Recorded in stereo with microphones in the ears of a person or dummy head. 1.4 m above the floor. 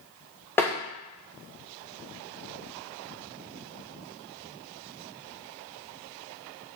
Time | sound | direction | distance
0.6 | tapping | 10° left (ahead or behind) | 1.5 m